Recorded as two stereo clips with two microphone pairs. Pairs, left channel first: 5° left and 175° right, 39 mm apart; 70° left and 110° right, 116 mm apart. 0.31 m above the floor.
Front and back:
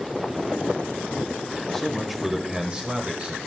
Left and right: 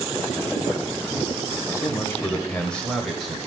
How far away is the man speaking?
About 1.2 m.